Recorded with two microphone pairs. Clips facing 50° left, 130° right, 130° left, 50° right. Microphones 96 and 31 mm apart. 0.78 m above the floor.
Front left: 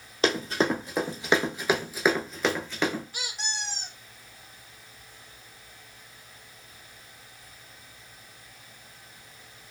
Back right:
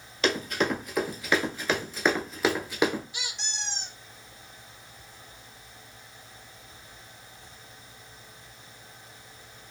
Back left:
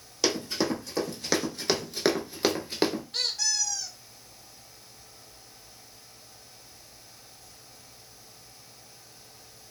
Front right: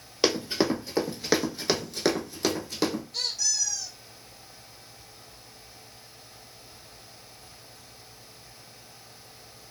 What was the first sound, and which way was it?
Running footsteps, straight ahead.